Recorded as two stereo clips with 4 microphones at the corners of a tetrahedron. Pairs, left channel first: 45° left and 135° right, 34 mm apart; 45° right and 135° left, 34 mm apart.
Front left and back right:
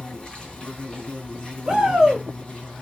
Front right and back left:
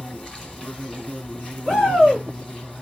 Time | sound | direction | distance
0.0 | an insect | 15° left | 2.5 m
1.6 | a shout | 110° right | 1.8 m